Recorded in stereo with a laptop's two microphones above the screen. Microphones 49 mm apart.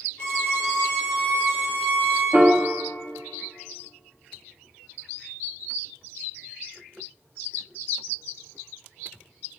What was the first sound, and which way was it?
A violin, 25° left (ahead or behind).